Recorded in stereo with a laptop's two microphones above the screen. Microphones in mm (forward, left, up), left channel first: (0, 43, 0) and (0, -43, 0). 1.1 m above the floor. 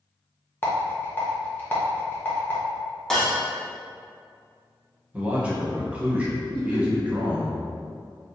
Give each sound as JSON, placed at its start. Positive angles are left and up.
{"t": 0.6, "sound": "a rattle", "side_deg": 25, "distance_m": 0.7}
{"t": 3.1, "sound": "breaking glass", "side_deg": 5, "distance_m": 1.0}
{"t": 5.1, "sound": "a man speaking", "side_deg": -15, "distance_m": 1.1}
{"t": 6.5, "sound": "laughter", "side_deg": 70, "distance_m": 1.2}